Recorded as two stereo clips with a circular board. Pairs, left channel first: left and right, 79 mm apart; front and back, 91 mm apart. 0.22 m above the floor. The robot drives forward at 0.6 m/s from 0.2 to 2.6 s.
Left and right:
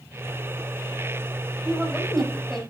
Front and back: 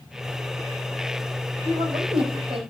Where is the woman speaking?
175° left, 9.5 m.